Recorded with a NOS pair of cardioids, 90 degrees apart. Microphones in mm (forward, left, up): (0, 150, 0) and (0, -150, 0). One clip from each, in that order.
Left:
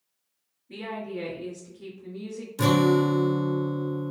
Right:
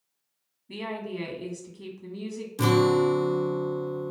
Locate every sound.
0.7 s a woman speaking: 65° right, 1.1 m
2.6 s a guitar: straight ahead, 0.6 m